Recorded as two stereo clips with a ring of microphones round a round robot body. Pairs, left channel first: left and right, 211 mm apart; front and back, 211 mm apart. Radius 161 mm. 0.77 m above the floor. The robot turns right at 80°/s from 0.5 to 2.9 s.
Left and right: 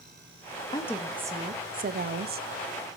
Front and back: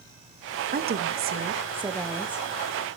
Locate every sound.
0.7 s a woman speaking: 155° left, 1.1 m; by 2.9 s 35° right, 1.1 m